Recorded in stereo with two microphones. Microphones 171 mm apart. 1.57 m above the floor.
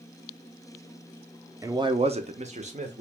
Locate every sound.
1.6 s a man speaking: 15° right (ahead or behind), 0.5 m; by 3.0 s 45° right (ahead or behind), 1.1 m